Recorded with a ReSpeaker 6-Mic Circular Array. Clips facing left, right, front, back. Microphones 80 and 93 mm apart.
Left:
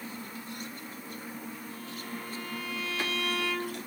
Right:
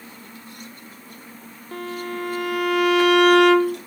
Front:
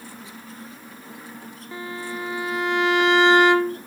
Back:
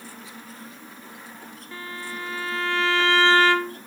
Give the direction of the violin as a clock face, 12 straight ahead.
2 o'clock.